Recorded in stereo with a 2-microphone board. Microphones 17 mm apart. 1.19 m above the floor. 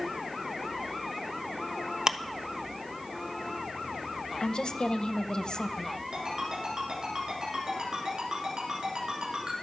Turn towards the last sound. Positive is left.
turn(degrees=-60)  # may be behind; listen again after turning